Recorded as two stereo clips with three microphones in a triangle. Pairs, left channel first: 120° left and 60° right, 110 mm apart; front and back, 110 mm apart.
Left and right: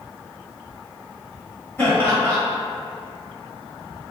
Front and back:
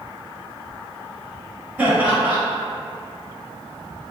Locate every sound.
1.8 s laughter: 140° left, 1.2 m